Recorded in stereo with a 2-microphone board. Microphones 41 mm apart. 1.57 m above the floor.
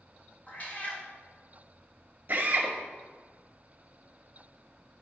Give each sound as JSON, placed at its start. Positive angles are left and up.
{"t": 0.5, "sound": "a cat meowing", "side_deg": 35, "distance_m": 1.8}
{"t": 2.3, "sound": "a drill", "side_deg": -40, "distance_m": 2.0}